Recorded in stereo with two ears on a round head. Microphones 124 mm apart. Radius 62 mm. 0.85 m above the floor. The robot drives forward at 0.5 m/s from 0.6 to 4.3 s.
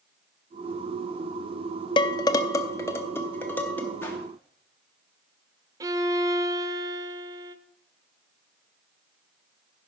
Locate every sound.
2.0 s dishes clattering: 35° left (ahead or behind), 0.6 m; by 3.9 s 15° left (ahead or behind), 1.5 m
4.0 s a whoosh: 15° left (ahead or behind), 1.9 m
5.8 s a violin: 25° right (ahead or behind), 0.8 m